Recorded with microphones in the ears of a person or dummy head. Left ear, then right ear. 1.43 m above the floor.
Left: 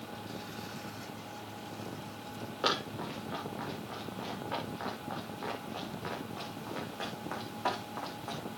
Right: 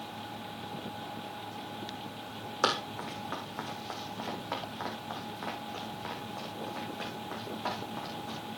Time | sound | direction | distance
2.6 | running footsteps | 45° right (ahead or behind) | 4 m